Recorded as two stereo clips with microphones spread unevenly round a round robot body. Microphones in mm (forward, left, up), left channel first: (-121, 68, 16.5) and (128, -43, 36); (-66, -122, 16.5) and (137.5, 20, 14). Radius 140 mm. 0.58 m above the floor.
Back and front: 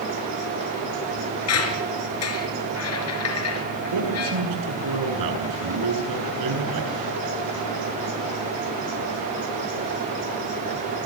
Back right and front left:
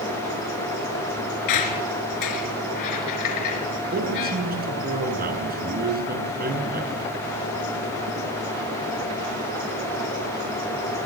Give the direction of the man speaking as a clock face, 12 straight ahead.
1 o'clock.